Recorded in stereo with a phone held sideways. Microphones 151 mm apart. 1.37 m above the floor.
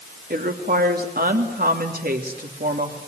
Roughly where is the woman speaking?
Right.